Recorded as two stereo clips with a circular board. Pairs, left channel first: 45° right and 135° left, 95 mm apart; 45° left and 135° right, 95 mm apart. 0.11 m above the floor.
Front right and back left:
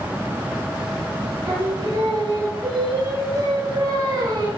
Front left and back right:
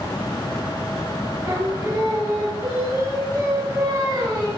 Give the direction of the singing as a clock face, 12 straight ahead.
6 o'clock.